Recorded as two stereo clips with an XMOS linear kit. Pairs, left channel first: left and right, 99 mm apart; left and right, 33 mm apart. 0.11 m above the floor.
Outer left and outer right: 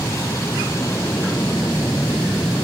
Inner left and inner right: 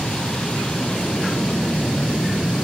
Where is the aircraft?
30° left (ahead or behind).